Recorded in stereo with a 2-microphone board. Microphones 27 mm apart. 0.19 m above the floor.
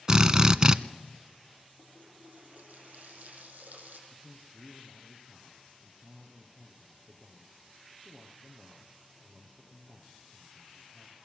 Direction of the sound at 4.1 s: 25° right (ahead or behind).